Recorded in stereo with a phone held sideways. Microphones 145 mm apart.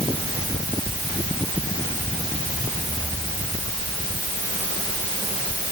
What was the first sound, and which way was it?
Only background noise.